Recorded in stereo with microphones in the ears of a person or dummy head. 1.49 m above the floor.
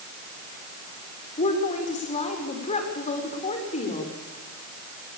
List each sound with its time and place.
1.4 s a woman speaking: 35° left (ahead or behind), 4.5 m